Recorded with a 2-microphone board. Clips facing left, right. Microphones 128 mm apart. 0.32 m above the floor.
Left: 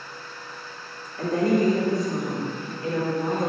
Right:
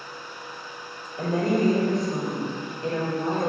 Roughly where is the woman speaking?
Right.